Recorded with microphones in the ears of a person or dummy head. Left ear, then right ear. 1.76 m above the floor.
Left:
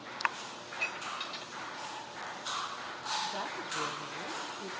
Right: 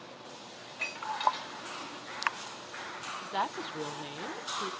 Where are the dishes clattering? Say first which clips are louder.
Right 1 dB; 5° left (ahead or behind), 5 m.